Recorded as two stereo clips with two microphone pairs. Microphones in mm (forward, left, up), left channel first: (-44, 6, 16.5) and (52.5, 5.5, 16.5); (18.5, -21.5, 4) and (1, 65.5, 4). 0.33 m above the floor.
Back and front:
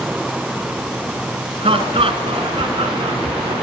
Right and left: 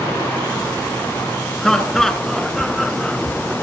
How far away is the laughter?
About 4 m.